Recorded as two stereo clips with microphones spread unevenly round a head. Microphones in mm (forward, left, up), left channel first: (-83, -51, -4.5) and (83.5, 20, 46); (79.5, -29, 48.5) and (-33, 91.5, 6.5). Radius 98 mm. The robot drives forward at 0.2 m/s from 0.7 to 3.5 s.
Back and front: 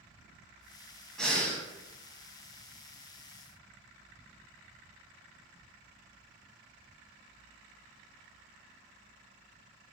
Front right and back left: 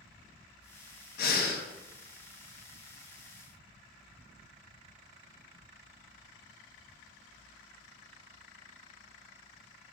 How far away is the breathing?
About 1.0 m.